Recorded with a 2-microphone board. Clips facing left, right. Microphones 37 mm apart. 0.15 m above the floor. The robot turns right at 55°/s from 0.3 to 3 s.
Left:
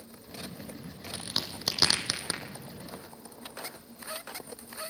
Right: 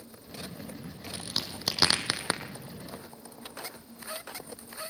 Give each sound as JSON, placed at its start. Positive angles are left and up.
{"t": 1.1, "sound": "a crack", "side_deg": 25, "distance_m": 2.5}